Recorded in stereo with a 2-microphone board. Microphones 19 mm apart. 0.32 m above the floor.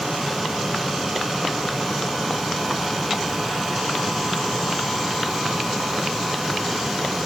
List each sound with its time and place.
Only background noise.